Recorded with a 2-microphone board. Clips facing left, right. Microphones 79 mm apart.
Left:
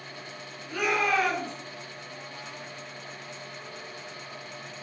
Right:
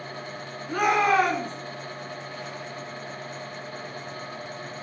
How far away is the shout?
About 3 m.